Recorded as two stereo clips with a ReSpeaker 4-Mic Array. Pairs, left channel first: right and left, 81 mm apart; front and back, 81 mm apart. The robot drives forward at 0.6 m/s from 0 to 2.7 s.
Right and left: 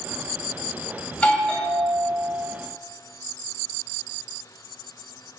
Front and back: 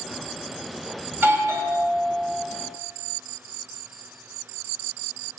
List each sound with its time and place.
1.1 s a doorbell: 145° right, 1.6 m; by 2.4 s 165° right, 2 m